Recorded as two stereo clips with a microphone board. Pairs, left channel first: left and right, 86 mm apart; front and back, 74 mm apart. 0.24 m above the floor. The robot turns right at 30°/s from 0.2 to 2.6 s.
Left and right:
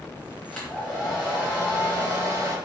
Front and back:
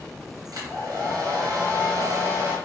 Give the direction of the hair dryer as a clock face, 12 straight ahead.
6 o'clock.